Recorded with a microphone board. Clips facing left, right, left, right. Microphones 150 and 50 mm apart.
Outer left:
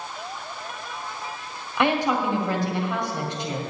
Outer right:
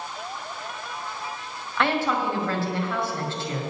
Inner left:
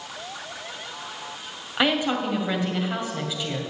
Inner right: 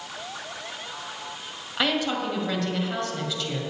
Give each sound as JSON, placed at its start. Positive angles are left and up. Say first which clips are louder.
{"t": 1.8, "sound": "a woman speaking", "louder": "outer left 2 dB, inner left 3 dB", "side_deg": 15, "distance_m": 2.0}